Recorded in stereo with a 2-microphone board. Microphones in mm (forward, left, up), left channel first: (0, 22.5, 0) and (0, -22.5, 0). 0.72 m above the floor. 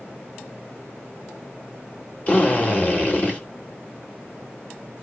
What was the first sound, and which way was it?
A drill, 35° left (ahead or behind).